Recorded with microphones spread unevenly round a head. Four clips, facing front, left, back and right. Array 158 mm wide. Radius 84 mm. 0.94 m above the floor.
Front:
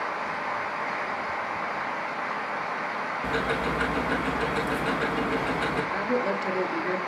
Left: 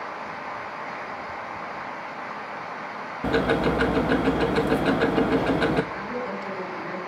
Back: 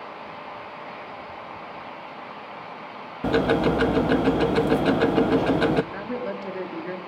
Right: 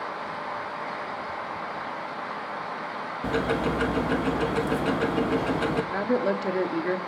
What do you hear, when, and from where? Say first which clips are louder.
3.2 s ticking: left 4 dB, back 9 dB; 155° left, 0.8 m
5.9 s a woman speaking: right 6 dB, front 4 dB; 80° right, 2.5 m